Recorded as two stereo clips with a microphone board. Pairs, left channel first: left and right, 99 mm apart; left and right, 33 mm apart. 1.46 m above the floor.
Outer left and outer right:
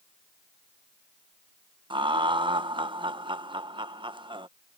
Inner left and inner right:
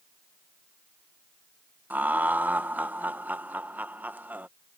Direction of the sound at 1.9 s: 55° right (ahead or behind).